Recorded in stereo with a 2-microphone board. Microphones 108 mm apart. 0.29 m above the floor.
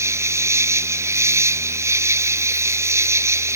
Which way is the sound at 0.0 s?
25° right (ahead or behind).